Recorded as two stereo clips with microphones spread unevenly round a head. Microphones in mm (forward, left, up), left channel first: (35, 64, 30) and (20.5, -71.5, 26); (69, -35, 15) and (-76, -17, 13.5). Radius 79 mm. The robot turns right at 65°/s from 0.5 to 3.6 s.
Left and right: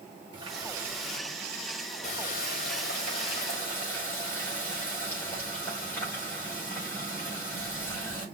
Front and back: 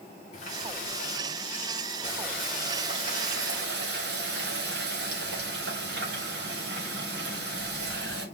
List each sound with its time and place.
0.3 s a running tap: 45° right, 4.5 m; by 8.2 s 160° left, 4.5 m